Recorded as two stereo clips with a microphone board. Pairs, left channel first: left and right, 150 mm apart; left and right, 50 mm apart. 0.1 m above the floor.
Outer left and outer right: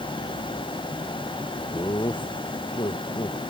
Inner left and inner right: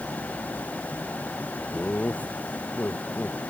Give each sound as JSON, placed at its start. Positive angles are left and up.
{"t": 1.7, "sound": "laughter", "side_deg": 30}